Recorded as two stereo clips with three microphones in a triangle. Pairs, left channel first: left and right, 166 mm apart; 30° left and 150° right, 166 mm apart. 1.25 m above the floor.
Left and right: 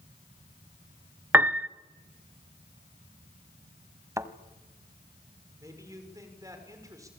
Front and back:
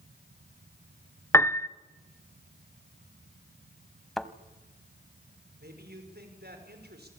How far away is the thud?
About 1.1 m.